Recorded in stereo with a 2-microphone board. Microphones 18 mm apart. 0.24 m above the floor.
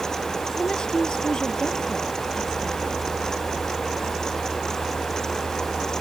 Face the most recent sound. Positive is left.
turn(degrees=55)  # may be behind; listen again after turning